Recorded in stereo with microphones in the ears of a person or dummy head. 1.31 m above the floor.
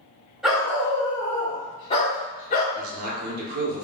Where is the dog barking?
Centre (ahead or behind), 1.6 m; by 2.6 s 45° left (ahead or behind), 1.7 m.